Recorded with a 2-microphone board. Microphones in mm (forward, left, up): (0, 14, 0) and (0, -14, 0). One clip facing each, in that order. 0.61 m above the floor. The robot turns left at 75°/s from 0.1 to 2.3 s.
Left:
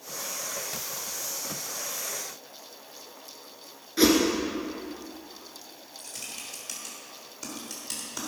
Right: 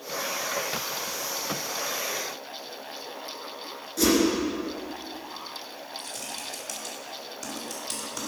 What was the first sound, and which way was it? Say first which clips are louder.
A whoosh: left 2 dB; 35° left (ahead or behind).